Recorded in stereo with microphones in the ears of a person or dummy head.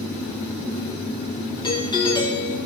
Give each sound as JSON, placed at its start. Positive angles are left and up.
{"t": 1.6, "sound": "a doorbell", "side_deg": 15, "distance_m": 1.6}